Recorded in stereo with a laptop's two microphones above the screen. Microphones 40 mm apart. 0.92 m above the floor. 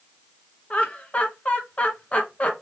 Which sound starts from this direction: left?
Laughter, at 0.7 s.